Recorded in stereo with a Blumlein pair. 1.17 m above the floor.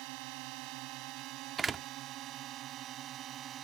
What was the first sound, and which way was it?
A drone, 45° right.